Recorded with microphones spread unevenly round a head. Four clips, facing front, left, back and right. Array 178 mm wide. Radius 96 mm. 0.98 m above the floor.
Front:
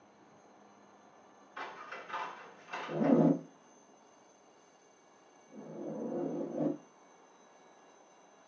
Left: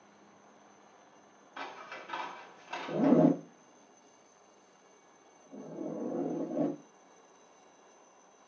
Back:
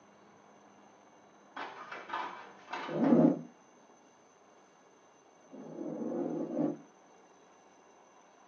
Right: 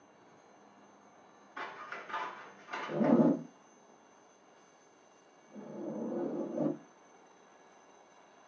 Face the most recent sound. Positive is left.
turn(degrees=115)